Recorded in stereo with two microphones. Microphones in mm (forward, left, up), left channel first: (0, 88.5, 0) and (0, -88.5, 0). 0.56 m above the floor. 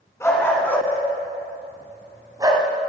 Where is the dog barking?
15° left (ahead or behind), 2 m; by 2.7 s 25° right (ahead or behind), 1.4 m.